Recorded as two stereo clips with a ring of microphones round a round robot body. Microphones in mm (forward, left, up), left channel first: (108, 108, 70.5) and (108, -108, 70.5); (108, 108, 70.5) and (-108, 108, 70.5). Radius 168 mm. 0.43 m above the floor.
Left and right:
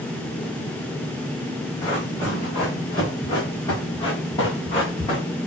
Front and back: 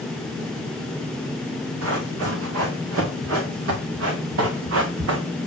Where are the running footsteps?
170° left, 4 m; by 5.2 s 165° left, 1.6 m.